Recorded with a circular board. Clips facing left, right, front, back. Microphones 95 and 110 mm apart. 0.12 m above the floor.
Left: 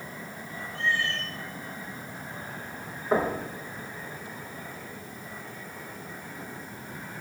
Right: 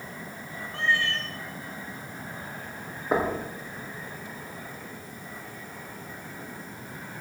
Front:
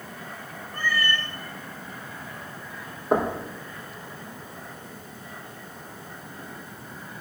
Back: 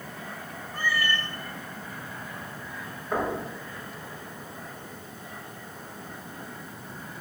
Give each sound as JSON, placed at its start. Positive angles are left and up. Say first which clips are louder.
{"t": 0.7, "sound": "a cat meowing", "louder": "right 2 dB, front 1 dB", "azimuth_deg": -95, "distance_m": 1.5}
{"t": 3.1, "sound": "knocking", "louder": "even, front 5 dB", "azimuth_deg": -15, "distance_m": 3.5}